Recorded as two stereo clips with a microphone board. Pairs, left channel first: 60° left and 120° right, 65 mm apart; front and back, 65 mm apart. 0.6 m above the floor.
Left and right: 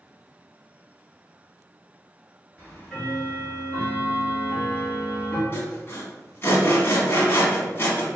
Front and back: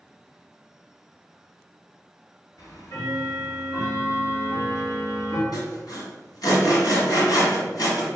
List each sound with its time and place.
2.6 s ticking: 15° right, 1.7 m
5.5 s sawing: 5° left, 1.3 m